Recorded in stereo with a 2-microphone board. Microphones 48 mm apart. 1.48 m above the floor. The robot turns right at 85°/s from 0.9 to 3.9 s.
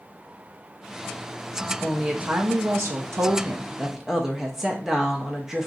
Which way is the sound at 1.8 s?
170° left.